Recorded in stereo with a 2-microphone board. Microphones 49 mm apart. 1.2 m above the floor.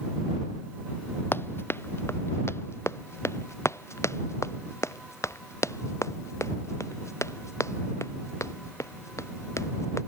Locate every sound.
1.3 s running footsteps: 50° left (ahead or behind); by 10.0 s 85° left